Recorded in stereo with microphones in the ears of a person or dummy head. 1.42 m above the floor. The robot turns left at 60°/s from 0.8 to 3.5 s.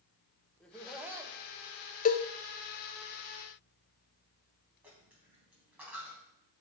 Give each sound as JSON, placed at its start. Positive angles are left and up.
{"t": 0.6, "sound": "laughter", "azimuth_deg": 10, "distance_m": 1.2}
{"t": 2.0, "sound": "a cowbell", "side_deg": 40, "distance_m": 0.6}
{"t": 4.8, "sound": "a dropped coin", "side_deg": -15, "distance_m": 3.5}